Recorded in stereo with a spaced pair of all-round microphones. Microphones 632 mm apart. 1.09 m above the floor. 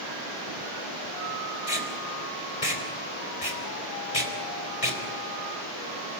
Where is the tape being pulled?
60° left (ahead or behind), 4 m.